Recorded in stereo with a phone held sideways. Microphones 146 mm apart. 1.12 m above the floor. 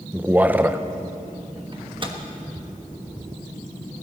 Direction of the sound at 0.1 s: 10° right (ahead or behind).